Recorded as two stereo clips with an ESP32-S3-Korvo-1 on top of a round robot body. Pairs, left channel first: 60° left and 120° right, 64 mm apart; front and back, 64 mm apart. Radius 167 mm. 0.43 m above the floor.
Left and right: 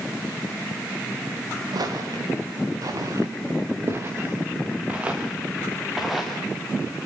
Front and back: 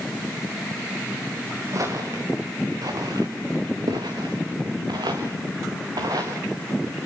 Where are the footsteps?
140° right, 5.5 m; by 6.4 s 150° left, 5 m.